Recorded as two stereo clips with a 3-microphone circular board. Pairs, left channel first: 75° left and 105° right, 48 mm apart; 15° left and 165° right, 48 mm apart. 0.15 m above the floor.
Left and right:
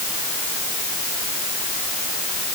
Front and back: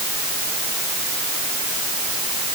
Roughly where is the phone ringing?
I don't hear a phone ringing.